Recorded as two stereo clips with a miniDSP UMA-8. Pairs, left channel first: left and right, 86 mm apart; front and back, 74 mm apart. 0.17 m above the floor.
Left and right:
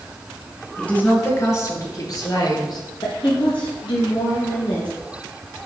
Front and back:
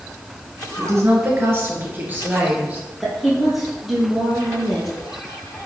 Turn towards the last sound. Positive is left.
turn(degrees=95)